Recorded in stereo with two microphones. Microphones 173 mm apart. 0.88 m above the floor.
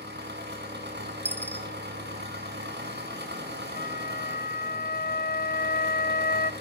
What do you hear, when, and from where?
0.0 s an engine running: 80° right, 6.5 m
1.2 s a dropped coin: 10° left (ahead or behind), 1.8 m
3.8 s a flute: 65° left (ahead or behind), 0.6 m